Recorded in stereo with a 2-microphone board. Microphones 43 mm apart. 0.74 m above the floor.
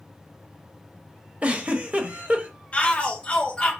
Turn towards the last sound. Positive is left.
turn(degrees=30)  # may be behind; listen again after turning